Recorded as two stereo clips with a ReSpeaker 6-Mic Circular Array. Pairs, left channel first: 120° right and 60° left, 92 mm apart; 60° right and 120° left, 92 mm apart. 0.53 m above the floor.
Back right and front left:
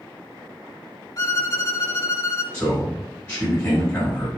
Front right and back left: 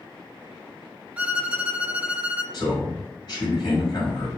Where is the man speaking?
45° right, 1.9 m.